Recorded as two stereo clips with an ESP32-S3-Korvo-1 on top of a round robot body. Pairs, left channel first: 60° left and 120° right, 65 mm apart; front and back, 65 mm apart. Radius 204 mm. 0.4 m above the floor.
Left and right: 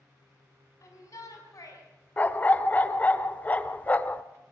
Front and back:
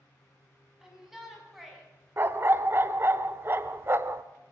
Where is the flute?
I don't hear a flute.